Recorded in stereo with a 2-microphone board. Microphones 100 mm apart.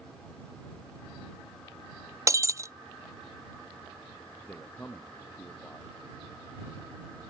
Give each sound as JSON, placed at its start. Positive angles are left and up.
{"t": 2.3, "sound": "breaking glass", "side_deg": -30}
{"t": 4.4, "sound": "a man speaking", "side_deg": 20}